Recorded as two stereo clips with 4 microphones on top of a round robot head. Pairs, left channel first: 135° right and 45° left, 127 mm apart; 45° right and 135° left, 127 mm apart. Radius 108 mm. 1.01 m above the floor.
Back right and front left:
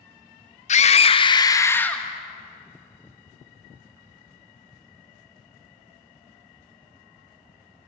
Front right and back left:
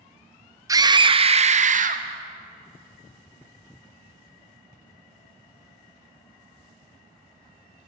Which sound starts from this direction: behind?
A scream, at 0.7 s.